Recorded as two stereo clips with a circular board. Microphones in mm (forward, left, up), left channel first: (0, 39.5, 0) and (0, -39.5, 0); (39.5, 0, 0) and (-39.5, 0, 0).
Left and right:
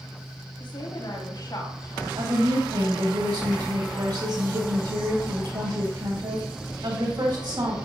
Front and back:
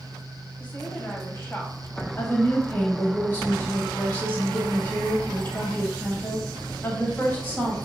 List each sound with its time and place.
0.6 s a woman speaking: 75° left, 3 m; by 2.1 s 50° left, 3.5 m
2.2 s a woman speaking: 70° right, 3 m